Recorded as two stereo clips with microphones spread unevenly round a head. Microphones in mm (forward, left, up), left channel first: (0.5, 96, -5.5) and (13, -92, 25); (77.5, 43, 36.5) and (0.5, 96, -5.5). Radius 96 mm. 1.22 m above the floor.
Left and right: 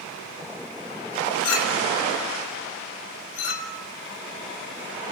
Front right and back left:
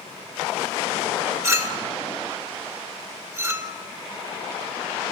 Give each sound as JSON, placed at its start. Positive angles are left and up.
{"t": 1.4, "sound": "a clink", "azimuth_deg": 85, "distance_m": 2.5}